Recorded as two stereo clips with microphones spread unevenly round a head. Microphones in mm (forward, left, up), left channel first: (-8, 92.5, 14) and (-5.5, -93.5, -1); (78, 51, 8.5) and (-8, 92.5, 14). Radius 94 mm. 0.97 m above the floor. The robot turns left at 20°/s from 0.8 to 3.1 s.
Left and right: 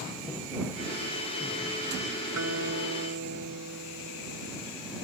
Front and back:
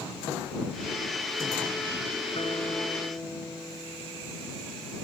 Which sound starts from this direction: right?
A guitar, at 2.3 s.